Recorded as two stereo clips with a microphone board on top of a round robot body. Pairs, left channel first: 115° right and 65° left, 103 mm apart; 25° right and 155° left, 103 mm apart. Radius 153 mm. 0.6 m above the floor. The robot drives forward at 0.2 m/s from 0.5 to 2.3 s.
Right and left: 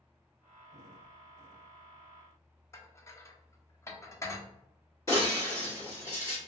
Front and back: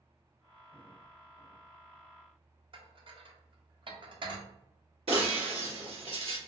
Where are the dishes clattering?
175° right, 0.8 m.